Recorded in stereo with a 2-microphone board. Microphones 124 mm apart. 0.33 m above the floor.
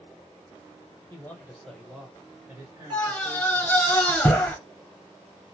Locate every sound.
1.1 s a man speaking: 20° left (ahead or behind), 1.1 m; by 3.9 s 45° right (ahead or behind), 1.7 m
2.9 s a scream: 5° left (ahead or behind), 1.7 m